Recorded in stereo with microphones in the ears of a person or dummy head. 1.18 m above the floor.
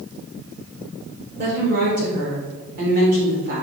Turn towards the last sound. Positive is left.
turn(degrees=-60)  # may be behind; listen again after turning